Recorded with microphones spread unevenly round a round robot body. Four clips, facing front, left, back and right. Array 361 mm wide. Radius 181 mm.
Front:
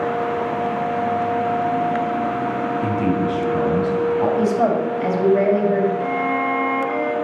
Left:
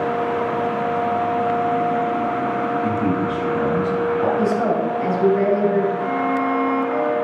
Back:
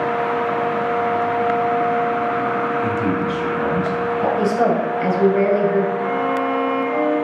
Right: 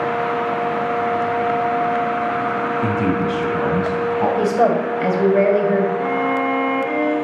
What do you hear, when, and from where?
2.8 s a man speaking: 60° right, 4.5 m; by 4.3 s 75° right, 5 m
4.4 s a woman speaking: 100° right, 2.5 m
6.0 s a violin: 75° right, 1.9 m